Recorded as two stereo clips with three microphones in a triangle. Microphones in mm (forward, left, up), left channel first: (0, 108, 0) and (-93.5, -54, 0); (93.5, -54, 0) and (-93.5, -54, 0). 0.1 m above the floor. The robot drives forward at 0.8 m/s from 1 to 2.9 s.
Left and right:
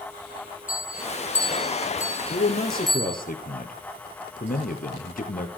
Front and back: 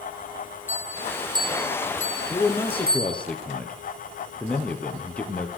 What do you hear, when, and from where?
0.7 s a bell: 100° left, 1.1 m; by 3.2 s 150° left, 2 m
2.3 s a man speaking: 65° left, 2 m; by 5.5 s 80° left, 2 m